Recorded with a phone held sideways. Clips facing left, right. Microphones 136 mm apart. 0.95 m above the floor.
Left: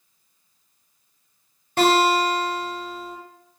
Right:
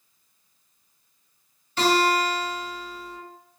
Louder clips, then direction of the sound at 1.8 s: Left 3 dB; 55° left (ahead or behind).